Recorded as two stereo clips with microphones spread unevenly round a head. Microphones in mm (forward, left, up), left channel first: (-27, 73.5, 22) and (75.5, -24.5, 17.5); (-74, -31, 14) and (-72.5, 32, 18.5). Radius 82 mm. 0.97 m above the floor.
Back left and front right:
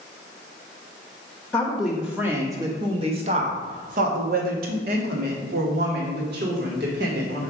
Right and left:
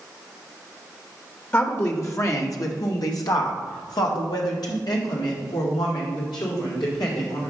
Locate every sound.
1.5 s a woman speaking: 140° right, 1.1 m; by 7.5 s 55° right, 3 m